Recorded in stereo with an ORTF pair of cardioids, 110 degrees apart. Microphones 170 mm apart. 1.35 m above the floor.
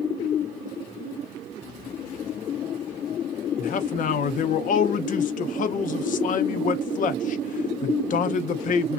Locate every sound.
3.6 s a man speaking: 50° left, 0.7 m